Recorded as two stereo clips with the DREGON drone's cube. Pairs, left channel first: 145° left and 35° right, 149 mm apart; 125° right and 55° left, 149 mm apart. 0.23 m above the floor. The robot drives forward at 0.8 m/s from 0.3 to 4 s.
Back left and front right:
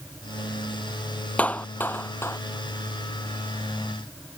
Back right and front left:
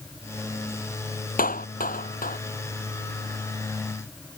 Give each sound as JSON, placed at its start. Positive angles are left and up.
{"t": 1.4, "sound": "a clap", "azimuth_deg": -135}